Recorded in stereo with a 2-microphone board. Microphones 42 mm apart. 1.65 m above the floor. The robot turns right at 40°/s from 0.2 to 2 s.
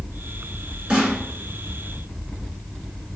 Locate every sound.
0.9 s a snare drum: 25° right (ahead or behind), 2 m; by 1.2 s 15° right (ahead or behind), 2 m